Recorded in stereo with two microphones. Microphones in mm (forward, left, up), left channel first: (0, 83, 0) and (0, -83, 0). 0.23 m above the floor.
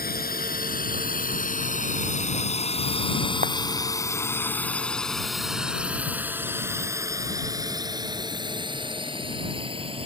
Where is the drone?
65° left (ahead or behind); by 10.1 s 35° right (ahead or behind).